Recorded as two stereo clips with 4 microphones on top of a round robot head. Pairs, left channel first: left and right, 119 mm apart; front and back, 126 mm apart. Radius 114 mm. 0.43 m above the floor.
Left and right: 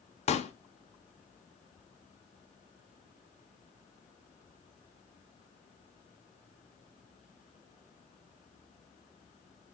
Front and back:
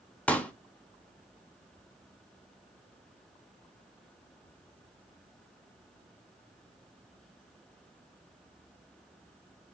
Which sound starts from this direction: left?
A pop, at 0.3 s.